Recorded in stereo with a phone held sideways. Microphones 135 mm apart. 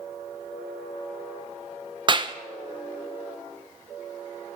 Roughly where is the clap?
Right.